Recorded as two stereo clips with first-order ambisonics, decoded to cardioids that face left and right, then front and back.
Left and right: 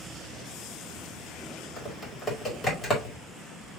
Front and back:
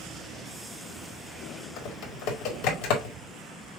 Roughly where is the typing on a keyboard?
Ahead.